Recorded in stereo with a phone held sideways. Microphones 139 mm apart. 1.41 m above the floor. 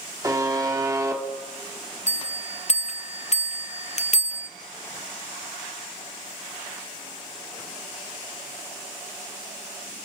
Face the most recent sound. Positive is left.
turn(degrees=55)  # may be behind; listen again after turning